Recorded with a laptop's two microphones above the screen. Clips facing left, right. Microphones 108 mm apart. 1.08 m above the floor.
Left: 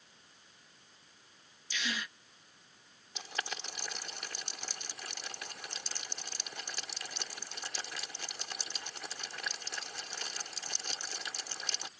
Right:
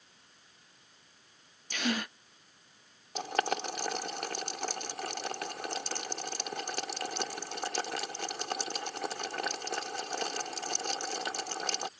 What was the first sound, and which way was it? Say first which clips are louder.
A gasp: right 7 dB; 50° right (ahead or behind).